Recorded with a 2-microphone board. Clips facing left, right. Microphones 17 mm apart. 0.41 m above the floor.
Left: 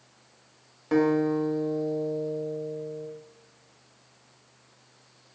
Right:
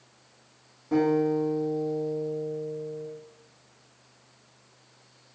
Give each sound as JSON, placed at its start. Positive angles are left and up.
{"t": 0.9, "sound": "a guitar", "side_deg": 75, "distance_m": 0.7}